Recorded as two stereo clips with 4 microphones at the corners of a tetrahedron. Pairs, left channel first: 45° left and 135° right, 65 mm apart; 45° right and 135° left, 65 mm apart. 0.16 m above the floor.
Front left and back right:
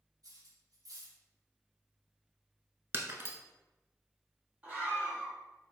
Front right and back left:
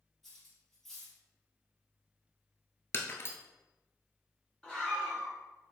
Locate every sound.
0.2 s cutlery clinking: 135° right, 2 m
2.9 s breaking glass: 90° right, 0.7 m
4.6 s a scream: 105° right, 1.7 m